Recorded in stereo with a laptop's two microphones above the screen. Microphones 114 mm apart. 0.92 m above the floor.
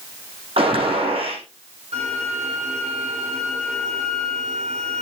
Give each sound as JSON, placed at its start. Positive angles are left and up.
{"t": 0.6, "sound": "a gunshot", "side_deg": -55, "distance_m": 6.5}
{"t": 1.9, "sound": "a violin", "side_deg": -70, "distance_m": 9.0}